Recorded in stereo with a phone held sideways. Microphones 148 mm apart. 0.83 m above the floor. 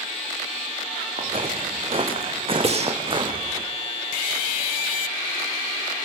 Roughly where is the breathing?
Right.